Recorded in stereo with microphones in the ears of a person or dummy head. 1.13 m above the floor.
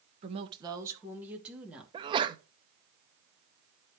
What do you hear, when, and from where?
0.2 s a woman speaking: 35° right (ahead or behind), 1.1 m; by 1.8 s centre (ahead or behind), 2.5 m
1.9 s a sneeze: 25° right (ahead or behind), 0.5 m